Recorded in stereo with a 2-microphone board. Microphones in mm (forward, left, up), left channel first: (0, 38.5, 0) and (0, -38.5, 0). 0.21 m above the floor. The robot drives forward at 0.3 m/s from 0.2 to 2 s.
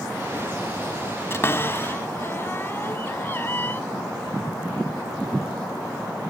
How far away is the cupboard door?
About 0.6 m.